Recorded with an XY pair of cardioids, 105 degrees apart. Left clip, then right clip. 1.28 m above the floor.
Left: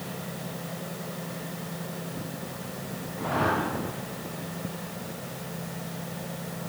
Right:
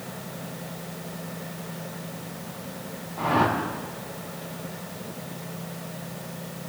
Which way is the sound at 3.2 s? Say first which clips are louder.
Right 4 dB; 65° right.